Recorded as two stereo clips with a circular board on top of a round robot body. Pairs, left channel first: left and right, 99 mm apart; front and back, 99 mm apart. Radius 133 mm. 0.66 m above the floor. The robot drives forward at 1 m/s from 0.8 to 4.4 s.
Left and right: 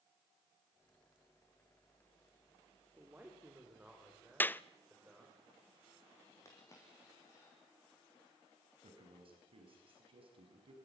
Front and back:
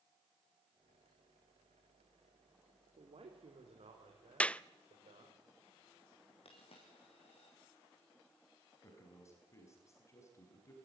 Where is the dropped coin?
30° left, 5 m.